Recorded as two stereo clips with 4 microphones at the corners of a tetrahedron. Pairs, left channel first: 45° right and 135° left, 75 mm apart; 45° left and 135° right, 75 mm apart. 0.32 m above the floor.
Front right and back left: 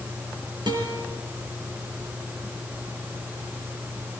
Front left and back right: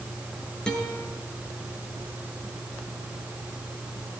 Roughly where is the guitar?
Behind left.